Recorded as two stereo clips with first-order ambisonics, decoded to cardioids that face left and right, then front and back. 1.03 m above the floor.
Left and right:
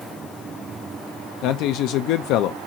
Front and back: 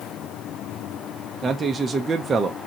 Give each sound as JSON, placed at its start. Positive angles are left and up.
{"t": 1.4, "sound": "a man speaking", "azimuth_deg": 110, "distance_m": 0.5}